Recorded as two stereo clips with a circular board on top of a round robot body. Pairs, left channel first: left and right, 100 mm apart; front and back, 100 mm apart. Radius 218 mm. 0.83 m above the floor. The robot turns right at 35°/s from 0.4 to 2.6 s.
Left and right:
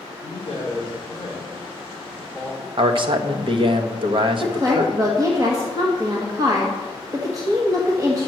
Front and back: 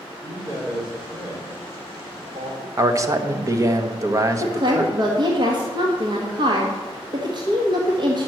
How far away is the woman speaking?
About 1.7 m.